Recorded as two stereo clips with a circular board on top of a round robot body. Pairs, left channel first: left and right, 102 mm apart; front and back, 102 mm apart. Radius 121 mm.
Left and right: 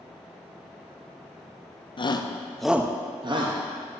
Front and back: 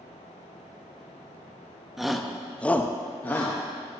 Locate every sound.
2.0 s a shout: 95° left, 0.8 m; by 3.6 s 70° right, 1.0 m